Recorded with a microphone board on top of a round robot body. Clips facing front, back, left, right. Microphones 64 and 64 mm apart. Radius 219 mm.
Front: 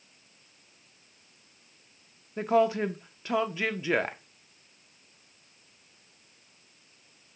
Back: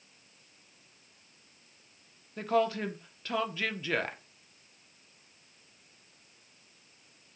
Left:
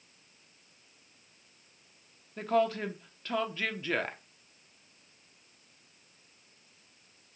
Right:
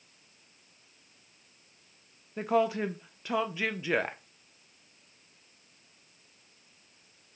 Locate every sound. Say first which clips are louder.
2.4 s a woman speaking: front 4 dB, right 1 dB; 35° right, 0.9 m